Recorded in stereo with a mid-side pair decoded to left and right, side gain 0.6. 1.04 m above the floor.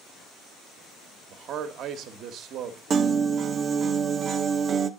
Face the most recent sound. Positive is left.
turn(degrees=-40)